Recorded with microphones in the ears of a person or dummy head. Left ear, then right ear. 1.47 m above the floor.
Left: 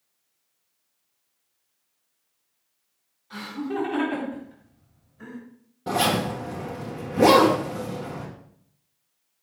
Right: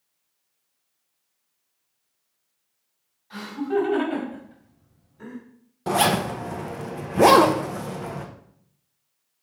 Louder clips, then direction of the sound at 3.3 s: Right 5 dB; 10° right (ahead or behind).